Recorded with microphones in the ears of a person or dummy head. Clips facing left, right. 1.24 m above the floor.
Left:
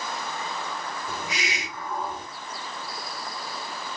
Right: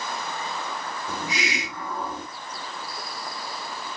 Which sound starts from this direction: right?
A hiss, at 1.1 s.